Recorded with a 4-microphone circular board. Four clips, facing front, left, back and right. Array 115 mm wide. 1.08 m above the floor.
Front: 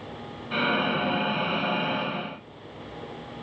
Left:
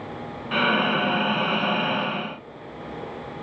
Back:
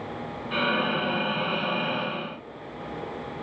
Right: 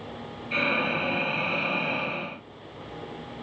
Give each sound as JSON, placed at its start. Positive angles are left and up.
{"t": 0.5, "sound": "breathing", "azimuth_deg": 85, "distance_m": 0.6}